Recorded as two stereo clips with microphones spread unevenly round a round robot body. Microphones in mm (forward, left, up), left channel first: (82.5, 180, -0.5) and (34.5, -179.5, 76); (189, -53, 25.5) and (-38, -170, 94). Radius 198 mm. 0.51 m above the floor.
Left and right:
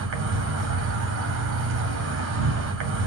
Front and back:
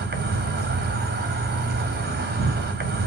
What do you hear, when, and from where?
0.0 s an insect: 125° right, 1.6 m